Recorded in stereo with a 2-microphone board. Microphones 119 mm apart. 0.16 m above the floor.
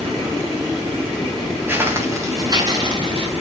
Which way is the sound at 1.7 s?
20° right (ahead or behind).